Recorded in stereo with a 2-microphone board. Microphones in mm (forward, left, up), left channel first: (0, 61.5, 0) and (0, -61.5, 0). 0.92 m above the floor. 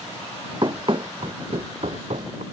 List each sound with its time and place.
0.6 s running footsteps: 40° right (ahead or behind); by 2.4 s 70° right (ahead or behind)